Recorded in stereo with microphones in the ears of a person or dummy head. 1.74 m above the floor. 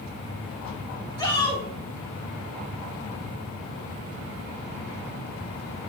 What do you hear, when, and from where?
1.2 s a shout: 25° left (ahead or behind), 2 m